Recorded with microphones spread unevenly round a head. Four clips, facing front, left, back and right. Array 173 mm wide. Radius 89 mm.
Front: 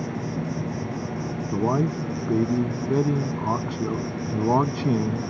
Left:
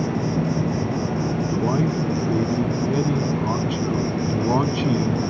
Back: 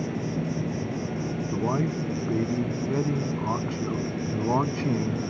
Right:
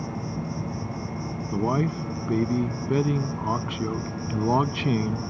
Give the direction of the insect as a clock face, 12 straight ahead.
8 o'clock.